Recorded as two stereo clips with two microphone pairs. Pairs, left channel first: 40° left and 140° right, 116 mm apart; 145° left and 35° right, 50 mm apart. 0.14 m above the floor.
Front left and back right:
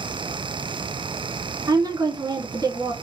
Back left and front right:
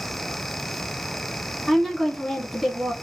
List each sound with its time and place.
1.7 s a woman speaking: 130° right, 1.4 m